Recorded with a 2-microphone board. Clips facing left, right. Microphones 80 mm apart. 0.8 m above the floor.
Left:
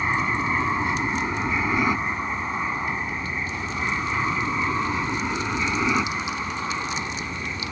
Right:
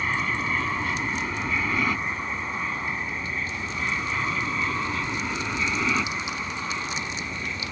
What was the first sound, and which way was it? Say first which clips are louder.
An aircraft: left 3 dB; 20° left (ahead or behind).